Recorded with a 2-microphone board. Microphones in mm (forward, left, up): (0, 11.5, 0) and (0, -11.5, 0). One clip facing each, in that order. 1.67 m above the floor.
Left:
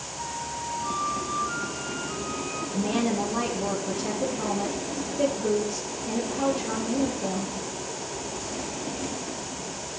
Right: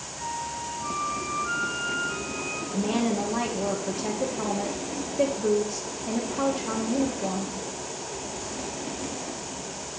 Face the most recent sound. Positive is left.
turn(degrees=-30)  # may be behind; listen again after turning